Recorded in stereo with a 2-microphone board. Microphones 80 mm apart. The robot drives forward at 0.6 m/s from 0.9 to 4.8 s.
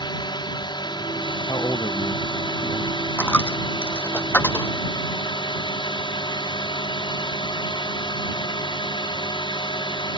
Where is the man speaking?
60° left (ahead or behind); by 3.0 s 30° left (ahead or behind).